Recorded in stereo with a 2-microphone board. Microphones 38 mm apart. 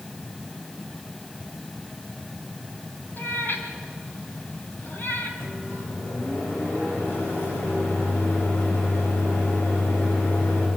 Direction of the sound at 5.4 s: 80° left.